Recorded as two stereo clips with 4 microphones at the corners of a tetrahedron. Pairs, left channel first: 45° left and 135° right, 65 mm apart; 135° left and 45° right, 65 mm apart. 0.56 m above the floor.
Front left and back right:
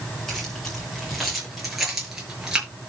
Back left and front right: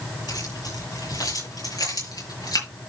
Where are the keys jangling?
130° left, 8 m; by 2.7 s 145° left, 6 m.